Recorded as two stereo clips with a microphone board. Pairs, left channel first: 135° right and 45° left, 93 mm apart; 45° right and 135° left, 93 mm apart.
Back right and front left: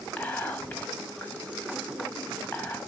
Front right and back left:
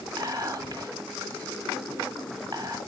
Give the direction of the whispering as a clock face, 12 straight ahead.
7 o'clock.